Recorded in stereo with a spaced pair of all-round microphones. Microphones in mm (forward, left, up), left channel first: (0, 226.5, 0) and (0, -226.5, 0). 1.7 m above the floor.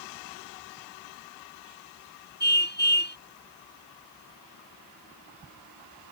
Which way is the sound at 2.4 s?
20° left (ahead or behind).